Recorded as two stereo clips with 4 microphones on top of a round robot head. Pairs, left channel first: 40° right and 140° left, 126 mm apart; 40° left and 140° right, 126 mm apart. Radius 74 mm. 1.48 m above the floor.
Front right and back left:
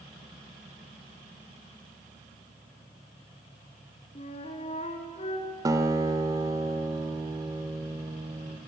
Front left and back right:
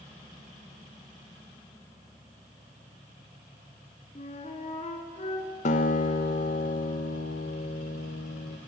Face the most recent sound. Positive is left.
turn(degrees=75)